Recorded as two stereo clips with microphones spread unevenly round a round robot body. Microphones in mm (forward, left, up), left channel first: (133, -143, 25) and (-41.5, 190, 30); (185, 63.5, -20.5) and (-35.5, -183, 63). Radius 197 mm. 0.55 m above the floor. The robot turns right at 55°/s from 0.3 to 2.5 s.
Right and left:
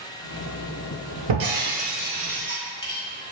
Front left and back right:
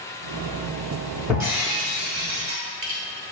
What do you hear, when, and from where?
1.3 s breaking glass: 155° left, 0.7 m; by 3.0 s 140° right, 0.7 m